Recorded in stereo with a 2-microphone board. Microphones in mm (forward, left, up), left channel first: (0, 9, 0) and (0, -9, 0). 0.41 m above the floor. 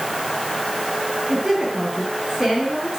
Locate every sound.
1.3 s a woman speaking: 30° right (ahead or behind), 6 m